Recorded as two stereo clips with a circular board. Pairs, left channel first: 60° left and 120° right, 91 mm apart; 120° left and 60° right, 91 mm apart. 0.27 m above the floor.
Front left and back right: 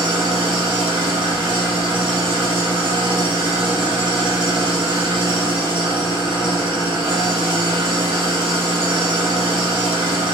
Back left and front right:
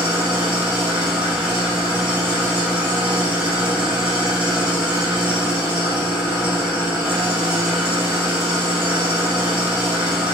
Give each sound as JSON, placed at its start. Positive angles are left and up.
{"t": 0.0, "sound": "an engine running", "azimuth_deg": -140, "distance_m": 1.7}